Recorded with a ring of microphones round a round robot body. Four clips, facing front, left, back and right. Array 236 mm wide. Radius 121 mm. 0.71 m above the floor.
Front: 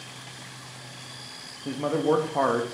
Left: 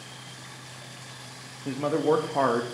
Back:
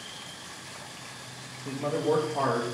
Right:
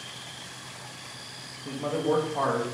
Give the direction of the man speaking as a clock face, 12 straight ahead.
10 o'clock.